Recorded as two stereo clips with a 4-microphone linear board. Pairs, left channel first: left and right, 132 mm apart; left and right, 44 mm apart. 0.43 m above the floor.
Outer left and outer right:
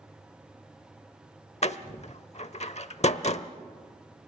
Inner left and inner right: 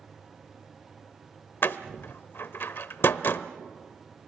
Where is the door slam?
55° left (ahead or behind), 0.8 m.